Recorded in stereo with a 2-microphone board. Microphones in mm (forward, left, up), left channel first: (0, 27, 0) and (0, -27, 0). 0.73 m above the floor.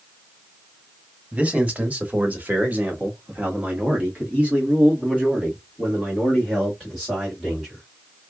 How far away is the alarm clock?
I don't hear an alarm clock.